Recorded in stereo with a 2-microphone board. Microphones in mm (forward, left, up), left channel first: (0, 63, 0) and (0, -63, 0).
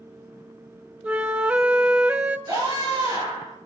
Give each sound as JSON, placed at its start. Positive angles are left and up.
{"t": 1.0, "sound": "a flute", "side_deg": -10, "distance_m": 0.7}
{"t": 2.5, "sound": "a scream", "side_deg": -30, "distance_m": 7.5}